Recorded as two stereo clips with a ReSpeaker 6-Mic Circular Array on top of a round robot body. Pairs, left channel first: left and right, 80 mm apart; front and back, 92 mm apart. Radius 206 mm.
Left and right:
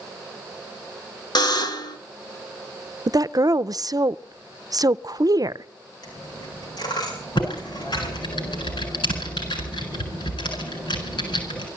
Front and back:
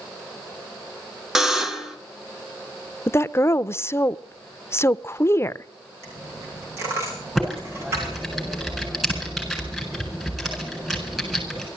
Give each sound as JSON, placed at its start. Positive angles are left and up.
{"t": 1.4, "sound": "a buzzer", "azimuth_deg": 95, "distance_m": 2.0}
{"t": 3.1, "sound": "a woman speaking", "azimuth_deg": -60, "distance_m": 0.7}
{"t": 6.0, "sound": "a dropped coin", "azimuth_deg": 120, "distance_m": 7.0}
{"t": 7.3, "sound": "typing on a keyboard", "azimuth_deg": 90, "distance_m": 8.5}